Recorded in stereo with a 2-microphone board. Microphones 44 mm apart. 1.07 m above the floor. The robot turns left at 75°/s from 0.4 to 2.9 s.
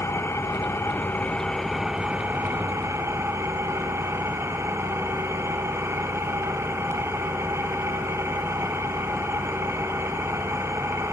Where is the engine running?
100° left, 4 m; by 11.1 s 90° right, 4 m.